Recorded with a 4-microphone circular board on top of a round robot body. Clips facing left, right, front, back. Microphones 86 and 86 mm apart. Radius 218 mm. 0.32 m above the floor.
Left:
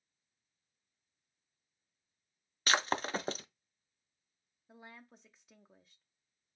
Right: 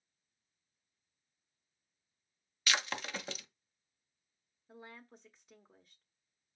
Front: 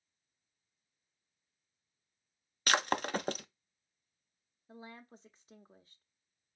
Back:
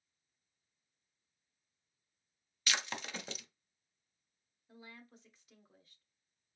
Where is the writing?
No writing in this recording.